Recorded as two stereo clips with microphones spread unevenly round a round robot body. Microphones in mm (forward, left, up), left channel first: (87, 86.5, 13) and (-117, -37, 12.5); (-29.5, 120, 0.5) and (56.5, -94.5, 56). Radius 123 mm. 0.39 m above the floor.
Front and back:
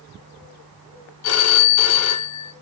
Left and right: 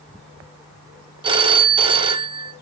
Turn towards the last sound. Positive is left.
turn(degrees=5)